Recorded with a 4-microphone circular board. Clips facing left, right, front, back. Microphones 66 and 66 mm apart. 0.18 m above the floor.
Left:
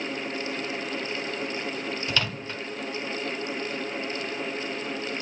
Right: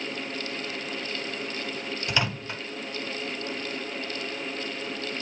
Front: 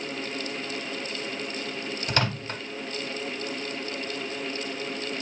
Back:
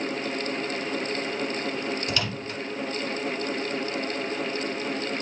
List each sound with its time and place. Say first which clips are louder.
2.1 s a microwave: right 1 dB, front 2 dB; 20° right, 1.1 m